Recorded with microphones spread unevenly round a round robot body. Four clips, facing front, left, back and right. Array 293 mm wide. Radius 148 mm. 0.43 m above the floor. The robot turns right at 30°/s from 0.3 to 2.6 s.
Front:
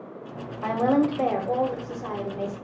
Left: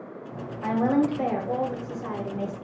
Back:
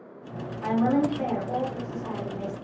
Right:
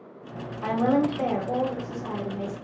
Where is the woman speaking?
25° right, 1.1 m; by 2.5 s 35° left, 1.1 m.